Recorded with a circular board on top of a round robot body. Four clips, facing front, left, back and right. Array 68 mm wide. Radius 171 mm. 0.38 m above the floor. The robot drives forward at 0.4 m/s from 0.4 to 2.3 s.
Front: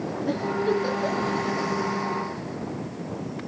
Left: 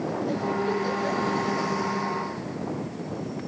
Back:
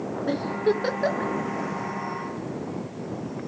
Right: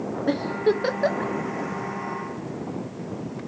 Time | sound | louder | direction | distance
0.3 | a giggle | right 6 dB, back 1 dB | 105° right | 1.0 m